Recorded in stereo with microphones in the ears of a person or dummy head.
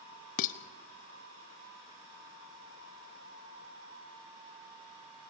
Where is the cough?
I don't hear a cough.